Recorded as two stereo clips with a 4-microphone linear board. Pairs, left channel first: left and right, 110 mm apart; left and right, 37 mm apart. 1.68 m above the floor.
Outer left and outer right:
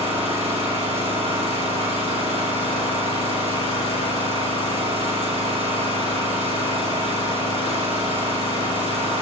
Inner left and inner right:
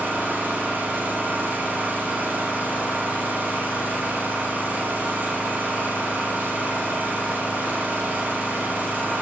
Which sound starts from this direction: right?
An engine running, at 0.0 s.